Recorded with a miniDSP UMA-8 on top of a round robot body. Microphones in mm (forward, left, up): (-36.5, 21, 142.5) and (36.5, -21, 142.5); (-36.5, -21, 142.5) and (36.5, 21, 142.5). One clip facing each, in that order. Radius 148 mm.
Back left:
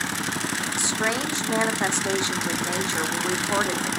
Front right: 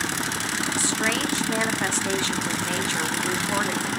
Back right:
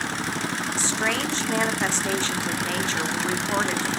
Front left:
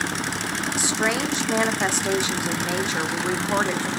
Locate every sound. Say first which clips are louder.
0.8 s a woman speaking: even, front left 3 dB; 95° left, 1.5 m